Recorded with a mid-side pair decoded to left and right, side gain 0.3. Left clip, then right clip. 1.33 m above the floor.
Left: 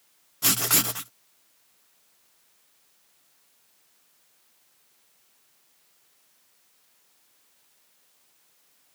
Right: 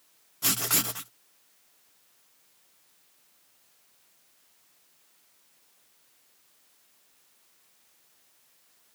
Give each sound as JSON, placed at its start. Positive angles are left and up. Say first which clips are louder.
{"t": 0.4, "sound": "writing", "louder": "left 4 dB", "azimuth_deg": 40}